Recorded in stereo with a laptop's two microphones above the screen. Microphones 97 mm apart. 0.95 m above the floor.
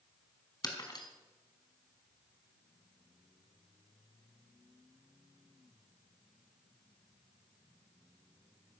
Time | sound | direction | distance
0.6 | breaking glass | 45° left (ahead or behind) | 3.5 m